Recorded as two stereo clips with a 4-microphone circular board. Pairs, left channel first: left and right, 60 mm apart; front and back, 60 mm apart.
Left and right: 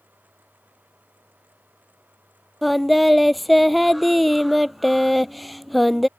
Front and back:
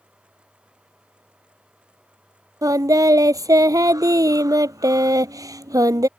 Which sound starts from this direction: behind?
Singing, at 2.6 s.